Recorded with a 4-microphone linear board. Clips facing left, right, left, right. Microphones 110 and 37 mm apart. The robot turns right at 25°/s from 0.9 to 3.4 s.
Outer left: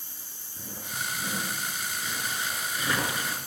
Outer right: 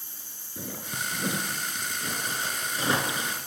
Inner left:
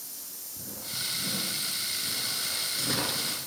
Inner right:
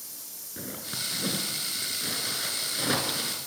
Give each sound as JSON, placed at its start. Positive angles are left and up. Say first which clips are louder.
{"t": 0.6, "sound": "a zipper", "louder": "outer right 2 dB, inner right 2 dB", "side_deg": -75, "distance_m": 5.0}